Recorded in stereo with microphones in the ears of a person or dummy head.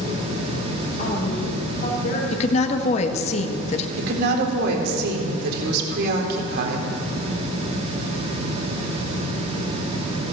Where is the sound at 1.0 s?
40° left (ahead or behind), 3 m; by 2.2 s 50° left (ahead or behind), 3.5 m.